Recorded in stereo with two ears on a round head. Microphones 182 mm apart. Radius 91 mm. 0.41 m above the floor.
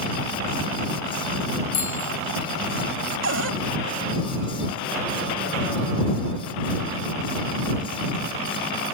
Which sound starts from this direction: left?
A bicycle bell, at 1.7 s.